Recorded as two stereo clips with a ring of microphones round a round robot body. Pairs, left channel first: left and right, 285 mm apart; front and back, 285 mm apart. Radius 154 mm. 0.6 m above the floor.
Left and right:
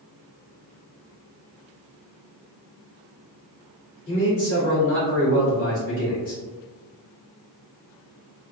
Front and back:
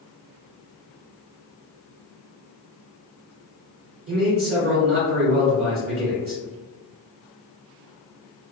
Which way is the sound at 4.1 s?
115° left.